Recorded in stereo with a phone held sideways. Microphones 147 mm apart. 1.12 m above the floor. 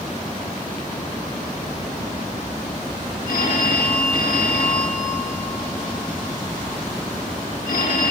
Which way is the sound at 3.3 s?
70° left (ahead or behind).